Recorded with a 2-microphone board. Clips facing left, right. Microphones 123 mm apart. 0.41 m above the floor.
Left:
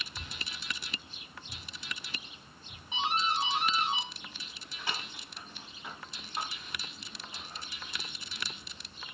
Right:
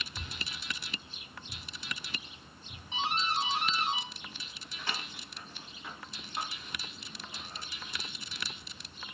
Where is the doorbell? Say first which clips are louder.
Left 1 dB; 10° left (ahead or behind), 1.2 m.